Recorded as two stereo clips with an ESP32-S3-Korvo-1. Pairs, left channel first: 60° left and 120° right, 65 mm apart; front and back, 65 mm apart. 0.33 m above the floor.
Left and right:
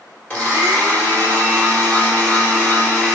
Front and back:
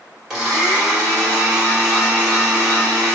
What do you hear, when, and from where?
0.3 s a blender: 100° left, 1.4 m